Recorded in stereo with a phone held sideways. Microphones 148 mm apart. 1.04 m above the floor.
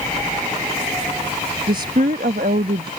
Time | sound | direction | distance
1.7 | a woman speaking | 85° right | ?